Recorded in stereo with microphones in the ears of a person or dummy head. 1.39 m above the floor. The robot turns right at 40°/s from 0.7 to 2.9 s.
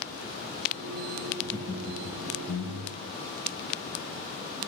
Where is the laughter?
5° left, 1.0 m; by 3.1 s 70° left, 1.0 m.